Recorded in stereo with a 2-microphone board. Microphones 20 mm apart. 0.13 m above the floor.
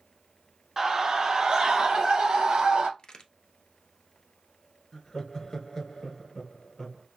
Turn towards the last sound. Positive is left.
turn(degrees=25)  # may be behind; listen again after turning